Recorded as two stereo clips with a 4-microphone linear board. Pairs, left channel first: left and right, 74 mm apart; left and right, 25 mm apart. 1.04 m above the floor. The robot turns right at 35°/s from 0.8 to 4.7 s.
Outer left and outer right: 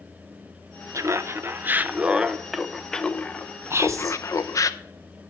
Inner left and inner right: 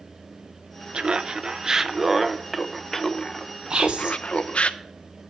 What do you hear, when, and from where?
0.9 s laughter: 60° right, 0.6 m; by 4.7 s 75° left, 0.6 m
3.7 s whispering: 35° right (ahead or behind), 0.6 m; by 4.2 s 50° right (ahead or behind), 0.6 m